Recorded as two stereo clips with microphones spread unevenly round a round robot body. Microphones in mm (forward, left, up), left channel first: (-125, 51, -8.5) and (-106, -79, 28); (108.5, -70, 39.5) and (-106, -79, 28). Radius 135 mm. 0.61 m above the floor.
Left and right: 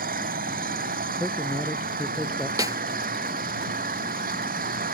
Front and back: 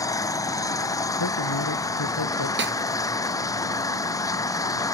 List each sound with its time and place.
0.0 s an engine running: 75° right
1.2 s a man speaking: 10° left
2.6 s a snare drum: 145° right